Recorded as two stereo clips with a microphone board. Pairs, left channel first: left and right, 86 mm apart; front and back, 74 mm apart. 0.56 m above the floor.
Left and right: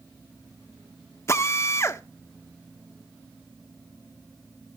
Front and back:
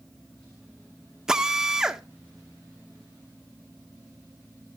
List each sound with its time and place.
1.3 s a drill: 105° left, 1.0 m